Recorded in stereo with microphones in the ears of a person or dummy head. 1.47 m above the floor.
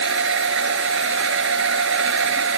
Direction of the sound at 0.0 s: 65° right (ahead or behind).